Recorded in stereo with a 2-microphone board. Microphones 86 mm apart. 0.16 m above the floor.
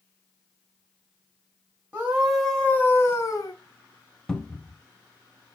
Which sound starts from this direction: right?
A scream, at 1.9 s.